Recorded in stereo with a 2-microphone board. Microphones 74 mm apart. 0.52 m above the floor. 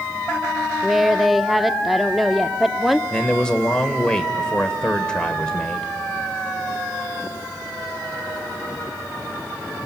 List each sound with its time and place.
0.8 s a woman speaking: centre (ahead or behind), 0.6 m
3.1 s a man speaking: 10° left (ahead or behind), 1.6 m